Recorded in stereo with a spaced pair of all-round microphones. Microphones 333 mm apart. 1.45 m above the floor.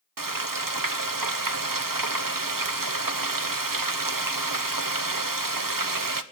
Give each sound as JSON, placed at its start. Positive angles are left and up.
{"t": 0.2, "sound": "frying", "side_deg": -75, "distance_m": 0.8}